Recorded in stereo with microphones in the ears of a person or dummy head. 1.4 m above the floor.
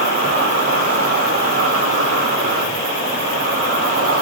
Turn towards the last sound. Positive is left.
turn(degrees=-50)  # may be behind; listen again after turning